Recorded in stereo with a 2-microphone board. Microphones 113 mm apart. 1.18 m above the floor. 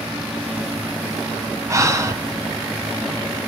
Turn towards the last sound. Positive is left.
turn(degrees=-25)  # may be behind; listen again after turning